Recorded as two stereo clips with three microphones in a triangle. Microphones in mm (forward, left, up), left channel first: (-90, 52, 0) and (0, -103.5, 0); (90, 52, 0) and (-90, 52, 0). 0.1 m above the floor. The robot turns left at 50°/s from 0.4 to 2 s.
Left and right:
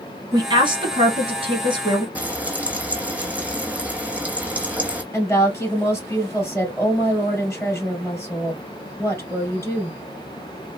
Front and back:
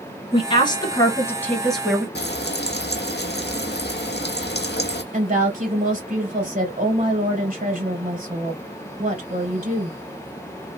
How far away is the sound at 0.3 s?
About 1.3 m.